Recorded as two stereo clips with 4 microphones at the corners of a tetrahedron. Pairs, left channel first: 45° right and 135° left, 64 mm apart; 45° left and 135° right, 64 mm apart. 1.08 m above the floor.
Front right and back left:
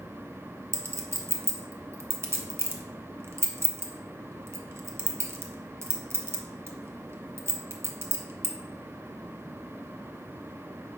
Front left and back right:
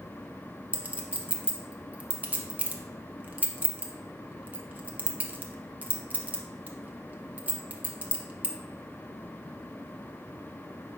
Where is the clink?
170° left, 0.6 m.